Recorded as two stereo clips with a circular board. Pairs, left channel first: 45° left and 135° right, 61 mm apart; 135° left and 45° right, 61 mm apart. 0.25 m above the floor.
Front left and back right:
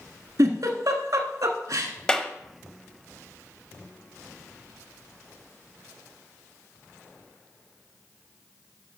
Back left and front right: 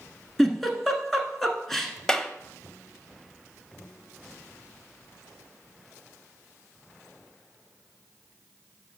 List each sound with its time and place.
0.4 s a giggle: 140° right, 1.1 m
2.1 s a clap: 85° left, 0.7 m